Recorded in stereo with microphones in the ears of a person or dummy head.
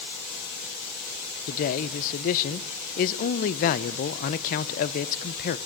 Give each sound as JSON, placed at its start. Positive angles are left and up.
{"t": 1.5, "sound": "a man speaking", "side_deg": 45, "distance_m": 1.2}